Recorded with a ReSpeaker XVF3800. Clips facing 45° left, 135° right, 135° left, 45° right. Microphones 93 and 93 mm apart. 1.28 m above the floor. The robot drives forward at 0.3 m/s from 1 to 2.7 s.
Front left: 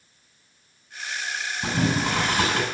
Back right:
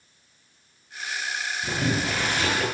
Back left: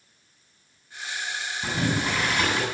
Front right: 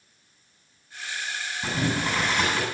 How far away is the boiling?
About 8 m.